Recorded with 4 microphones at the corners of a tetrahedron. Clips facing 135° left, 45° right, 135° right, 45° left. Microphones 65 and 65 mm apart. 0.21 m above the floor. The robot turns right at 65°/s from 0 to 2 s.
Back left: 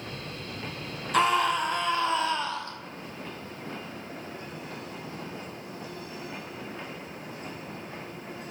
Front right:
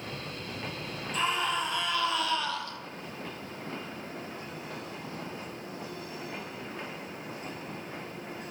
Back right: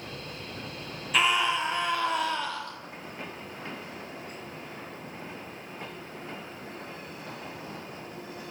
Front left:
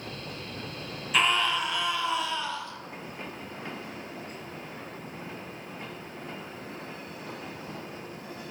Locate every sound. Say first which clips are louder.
1.1 s a scream: back left 7 dB, even; 135° left, 6 m; by 2.8 s 170° right, 6 m